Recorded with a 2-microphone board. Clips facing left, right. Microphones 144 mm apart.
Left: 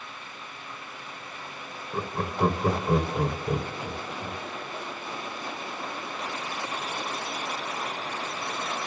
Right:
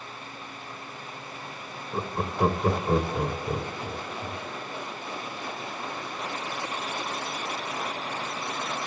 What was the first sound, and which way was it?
Laughter, 10° right (ahead or behind).